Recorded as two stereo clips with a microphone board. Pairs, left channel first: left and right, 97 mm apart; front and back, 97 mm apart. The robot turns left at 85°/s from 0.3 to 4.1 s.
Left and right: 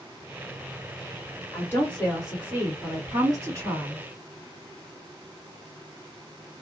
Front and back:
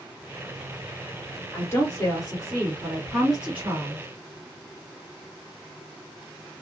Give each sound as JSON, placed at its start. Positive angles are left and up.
{"t": 1.5, "sound": "a woman speaking", "azimuth_deg": 55, "distance_m": 1.9}